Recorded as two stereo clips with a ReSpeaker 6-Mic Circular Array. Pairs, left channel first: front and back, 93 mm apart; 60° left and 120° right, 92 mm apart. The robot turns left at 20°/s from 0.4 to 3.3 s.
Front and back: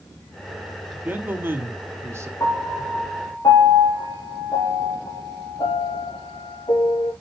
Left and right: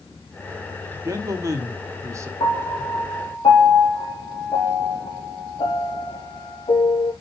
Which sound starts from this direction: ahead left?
A piano, at 2.4 s.